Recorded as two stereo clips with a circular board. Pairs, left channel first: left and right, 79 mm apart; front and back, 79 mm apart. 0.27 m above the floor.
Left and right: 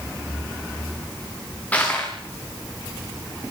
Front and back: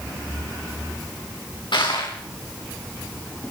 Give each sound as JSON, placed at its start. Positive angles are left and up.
{"t": 1.7, "sound": "crushing", "azimuth_deg": 15, "distance_m": 9.0}